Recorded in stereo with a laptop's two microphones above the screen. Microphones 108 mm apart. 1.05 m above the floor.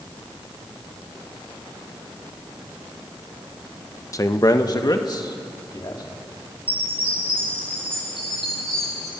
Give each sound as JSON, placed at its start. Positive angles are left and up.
{"t": 4.1, "sound": "a man speaking", "side_deg": 30, "distance_m": 0.9}
{"t": 6.7, "sound": "a chime", "side_deg": -60, "distance_m": 9.0}